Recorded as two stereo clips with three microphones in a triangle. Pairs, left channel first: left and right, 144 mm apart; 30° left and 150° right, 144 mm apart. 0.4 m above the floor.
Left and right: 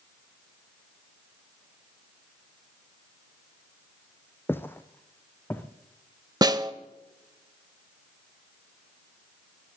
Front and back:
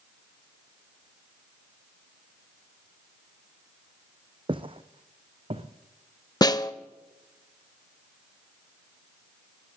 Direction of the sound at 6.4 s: 30° right.